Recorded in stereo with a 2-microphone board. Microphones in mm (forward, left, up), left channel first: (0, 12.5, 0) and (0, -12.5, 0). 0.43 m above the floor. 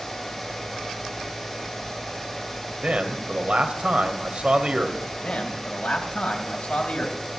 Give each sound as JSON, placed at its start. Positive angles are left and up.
{"t": 2.8, "sound": "a man speaking", "side_deg": -50, "distance_m": 2.0}
{"t": 5.2, "sound": "a man speaking", "side_deg": 60, "distance_m": 3.0}